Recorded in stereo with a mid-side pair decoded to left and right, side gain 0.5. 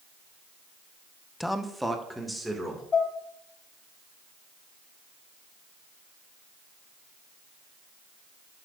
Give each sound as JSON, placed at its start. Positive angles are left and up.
{"t": 1.4, "sound": "a man speaking", "azimuth_deg": 5, "distance_m": 0.9}
{"t": 2.9, "sound": "dishes clattering", "azimuth_deg": 30, "distance_m": 2.0}